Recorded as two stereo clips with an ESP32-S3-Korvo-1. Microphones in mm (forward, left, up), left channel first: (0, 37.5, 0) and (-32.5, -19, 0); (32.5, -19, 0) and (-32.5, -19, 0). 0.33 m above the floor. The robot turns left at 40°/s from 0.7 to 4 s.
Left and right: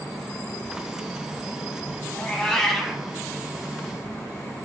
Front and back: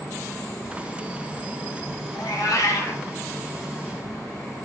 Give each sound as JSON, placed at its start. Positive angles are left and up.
{"t": 2.1, "sound": "a cat meowing", "azimuth_deg": -5, "distance_m": 0.9}